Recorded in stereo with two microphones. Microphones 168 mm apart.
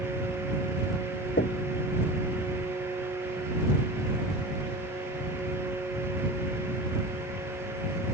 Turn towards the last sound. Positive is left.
turn(degrees=85)